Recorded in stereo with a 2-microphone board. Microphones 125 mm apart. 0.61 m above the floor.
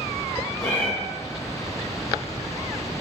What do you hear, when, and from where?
0.6 s a cat meowing: 10° left (ahead or behind), 1.3 m